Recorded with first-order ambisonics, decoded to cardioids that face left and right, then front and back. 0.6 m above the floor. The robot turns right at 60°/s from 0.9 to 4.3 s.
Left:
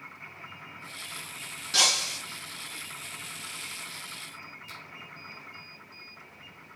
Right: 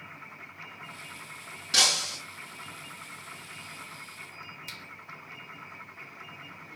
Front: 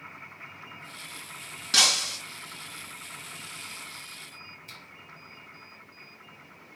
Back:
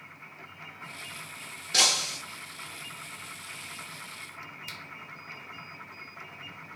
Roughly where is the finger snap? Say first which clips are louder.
Right 3 dB, back 4 dB; behind right.